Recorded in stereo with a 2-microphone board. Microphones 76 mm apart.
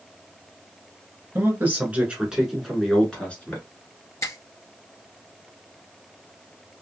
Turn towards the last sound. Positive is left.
turn(degrees=45)  # may be behind; listen again after turning